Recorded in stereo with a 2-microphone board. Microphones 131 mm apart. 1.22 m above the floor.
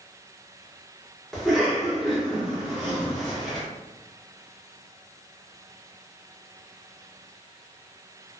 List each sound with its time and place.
1.3 s a cough: centre (ahead or behind), 1.4 m